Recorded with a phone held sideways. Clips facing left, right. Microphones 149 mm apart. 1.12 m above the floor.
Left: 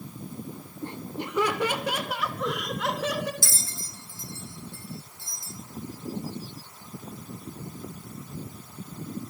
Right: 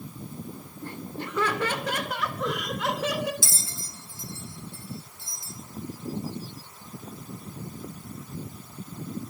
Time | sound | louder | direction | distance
0.8 | laughter | left 2 dB | 20° left (ahead or behind) | 3 m
3.4 | a bell | even | 20° right (ahead or behind) | 7.5 m